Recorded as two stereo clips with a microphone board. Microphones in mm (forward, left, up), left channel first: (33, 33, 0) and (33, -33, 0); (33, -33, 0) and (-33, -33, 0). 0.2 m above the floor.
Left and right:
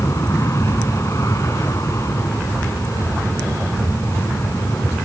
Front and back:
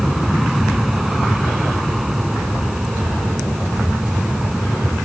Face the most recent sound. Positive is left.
turn(degrees=95)